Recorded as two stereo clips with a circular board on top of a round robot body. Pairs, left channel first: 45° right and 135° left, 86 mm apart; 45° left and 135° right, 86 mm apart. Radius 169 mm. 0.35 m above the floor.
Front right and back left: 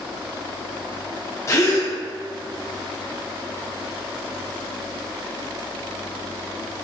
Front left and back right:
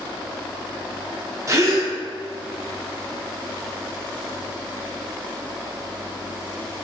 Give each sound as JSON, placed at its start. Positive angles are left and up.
{"t": 1.5, "sound": "a gasp", "azimuth_deg": -95, "distance_m": 1.2}